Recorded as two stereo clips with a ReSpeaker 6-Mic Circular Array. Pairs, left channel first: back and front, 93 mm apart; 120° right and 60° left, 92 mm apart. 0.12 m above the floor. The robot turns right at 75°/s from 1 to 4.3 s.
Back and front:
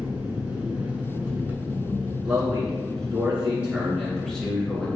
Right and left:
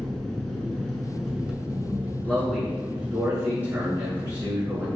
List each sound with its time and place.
0.0 s an engine running: 40° right, 0.8 m; by 5.0 s 150° right, 0.8 m
2.2 s a man speaking: 55° right, 1.6 m; by 4.9 s 95° left, 1.6 m